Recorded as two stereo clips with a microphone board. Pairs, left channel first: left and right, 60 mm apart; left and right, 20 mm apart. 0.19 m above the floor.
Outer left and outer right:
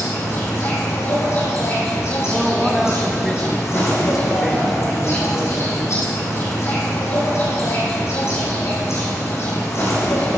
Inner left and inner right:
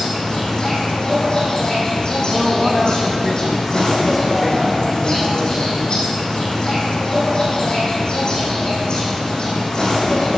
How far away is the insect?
About 5 m.